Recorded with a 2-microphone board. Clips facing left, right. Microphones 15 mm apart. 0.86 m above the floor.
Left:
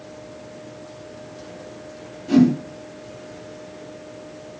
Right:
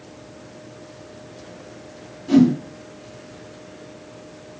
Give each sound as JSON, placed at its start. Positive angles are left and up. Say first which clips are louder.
{"t": 2.3, "sound": "a whoosh", "louder": "right 1 dB", "side_deg": -5, "distance_m": 1.8}